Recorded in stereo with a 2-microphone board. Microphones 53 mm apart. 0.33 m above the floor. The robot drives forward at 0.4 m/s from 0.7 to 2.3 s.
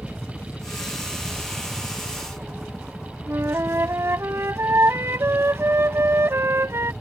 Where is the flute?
55° right (ahead or behind).